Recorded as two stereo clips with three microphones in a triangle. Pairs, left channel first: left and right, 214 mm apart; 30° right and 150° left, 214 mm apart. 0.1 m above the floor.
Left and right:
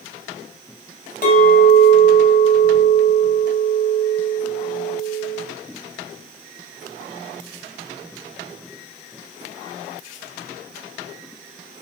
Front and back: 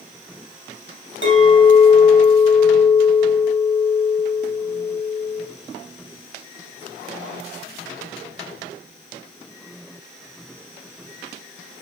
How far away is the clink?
About 2.5 m.